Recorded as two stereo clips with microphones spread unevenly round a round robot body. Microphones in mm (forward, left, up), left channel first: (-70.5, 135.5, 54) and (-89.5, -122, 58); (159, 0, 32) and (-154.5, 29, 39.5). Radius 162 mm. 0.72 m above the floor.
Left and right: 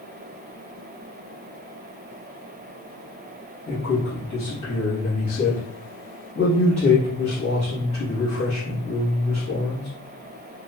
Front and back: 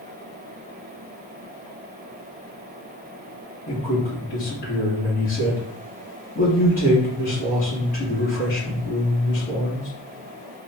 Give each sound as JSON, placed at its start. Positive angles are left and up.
{"t": 3.7, "sound": "a man speaking", "azimuth_deg": 35, "distance_m": 1.0}